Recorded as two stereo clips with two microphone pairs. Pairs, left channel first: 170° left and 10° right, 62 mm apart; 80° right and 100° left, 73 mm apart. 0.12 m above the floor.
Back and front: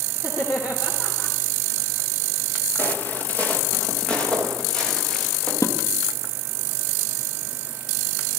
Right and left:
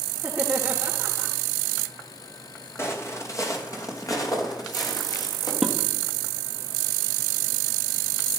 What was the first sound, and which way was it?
Laughter, straight behind.